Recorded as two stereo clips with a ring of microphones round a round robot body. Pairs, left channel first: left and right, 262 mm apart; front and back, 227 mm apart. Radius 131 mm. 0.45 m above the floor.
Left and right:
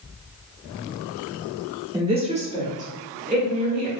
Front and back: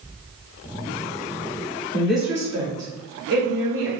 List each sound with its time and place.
1.9 s a woman speaking: 65° right, 0.9 m; by 3.9 s 150° right, 1.7 m